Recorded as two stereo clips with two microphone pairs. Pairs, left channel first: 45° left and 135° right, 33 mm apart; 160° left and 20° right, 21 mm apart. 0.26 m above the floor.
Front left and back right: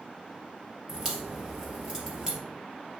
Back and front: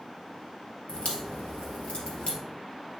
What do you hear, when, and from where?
0.9 s a crack: 155° left, 2.5 m